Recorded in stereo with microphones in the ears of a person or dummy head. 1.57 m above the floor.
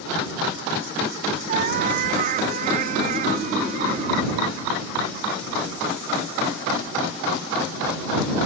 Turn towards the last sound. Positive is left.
turn(degrees=-40)  # may be behind; listen again after turning